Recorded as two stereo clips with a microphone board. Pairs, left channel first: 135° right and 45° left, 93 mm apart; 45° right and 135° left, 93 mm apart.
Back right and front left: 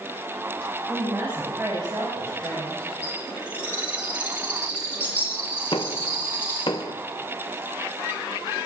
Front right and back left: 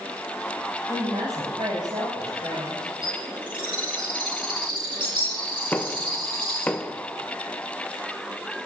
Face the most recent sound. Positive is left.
turn(degrees=-115)